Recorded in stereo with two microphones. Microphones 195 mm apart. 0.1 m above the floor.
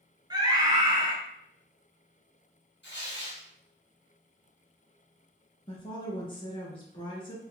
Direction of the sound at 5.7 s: 25° left (ahead or behind).